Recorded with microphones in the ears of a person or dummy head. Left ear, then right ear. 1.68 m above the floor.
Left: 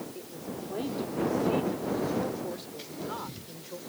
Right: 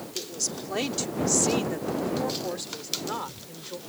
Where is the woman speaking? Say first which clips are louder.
Right 8 dB; 80° right; by 3.8 s 15° right (ahead or behind).